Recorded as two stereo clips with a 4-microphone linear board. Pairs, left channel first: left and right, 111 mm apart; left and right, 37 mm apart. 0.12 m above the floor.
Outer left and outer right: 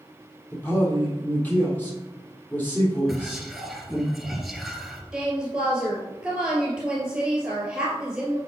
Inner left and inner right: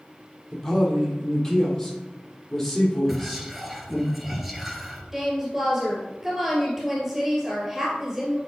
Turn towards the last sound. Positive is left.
turn(degrees=-10)  # may be behind; listen again after turning